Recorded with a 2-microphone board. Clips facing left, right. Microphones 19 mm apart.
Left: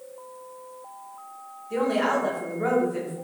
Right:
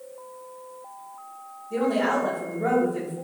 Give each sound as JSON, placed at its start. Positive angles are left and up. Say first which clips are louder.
{"t": 1.7, "sound": "a woman speaking", "louder": "even", "side_deg": 65, "distance_m": 1.2}